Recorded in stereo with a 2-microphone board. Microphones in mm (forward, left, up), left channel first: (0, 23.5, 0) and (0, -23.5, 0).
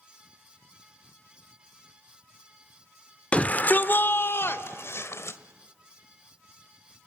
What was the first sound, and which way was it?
A shout, 25° left (ahead or behind).